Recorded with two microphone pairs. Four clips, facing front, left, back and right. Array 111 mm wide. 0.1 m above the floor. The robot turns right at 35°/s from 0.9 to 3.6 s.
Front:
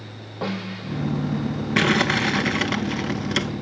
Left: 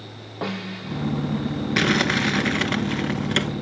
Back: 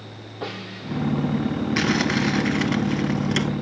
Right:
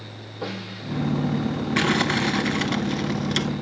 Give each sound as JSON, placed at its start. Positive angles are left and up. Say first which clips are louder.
{"t": 0.4, "sound": "a snare drum", "louder": "left 3 dB, front 4 dB", "azimuth_deg": 65, "distance_m": 8.5}
{"t": 1.8, "sound": "crumpling", "louder": "left 1 dB, front 4 dB", "azimuth_deg": 20, "distance_m": 1.2}